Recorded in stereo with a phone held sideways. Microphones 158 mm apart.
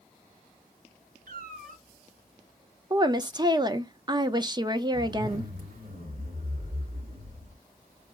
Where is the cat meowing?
65° right (ahead or behind), 2.5 m.